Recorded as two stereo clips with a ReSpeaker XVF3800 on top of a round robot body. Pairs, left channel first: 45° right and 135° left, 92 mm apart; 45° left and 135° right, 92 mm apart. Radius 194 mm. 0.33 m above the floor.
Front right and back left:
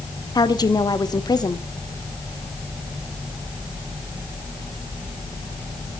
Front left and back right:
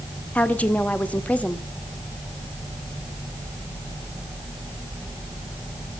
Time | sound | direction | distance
0.3 | a woman speaking | 25° right | 1.8 m